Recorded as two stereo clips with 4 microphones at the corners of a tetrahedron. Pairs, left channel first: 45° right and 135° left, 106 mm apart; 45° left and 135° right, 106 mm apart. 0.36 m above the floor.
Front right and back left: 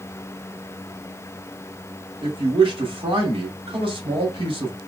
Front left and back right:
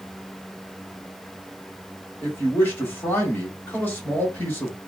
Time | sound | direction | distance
2.2 | a man speaking | 110° left | 1.6 m